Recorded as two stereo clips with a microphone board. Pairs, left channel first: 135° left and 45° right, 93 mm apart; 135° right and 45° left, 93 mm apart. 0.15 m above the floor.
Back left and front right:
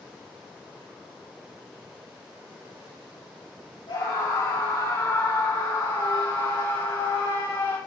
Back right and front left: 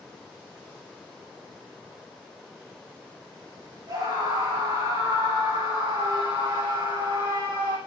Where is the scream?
90° left, 7.5 m.